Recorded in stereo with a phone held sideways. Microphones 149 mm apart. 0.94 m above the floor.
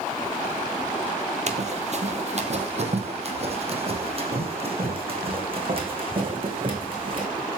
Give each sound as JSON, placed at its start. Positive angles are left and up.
{"t": 1.5, "sound": "running footsteps", "side_deg": -50, "distance_m": 1.5}